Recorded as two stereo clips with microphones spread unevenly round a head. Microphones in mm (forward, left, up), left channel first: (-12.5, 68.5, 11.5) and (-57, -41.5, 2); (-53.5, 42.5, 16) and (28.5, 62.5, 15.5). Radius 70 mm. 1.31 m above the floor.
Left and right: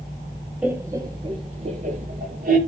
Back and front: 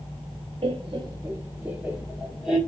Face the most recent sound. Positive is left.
turn(degrees=-75)